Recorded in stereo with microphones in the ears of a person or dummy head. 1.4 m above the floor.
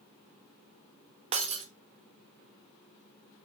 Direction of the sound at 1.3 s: 30° right (ahead or behind).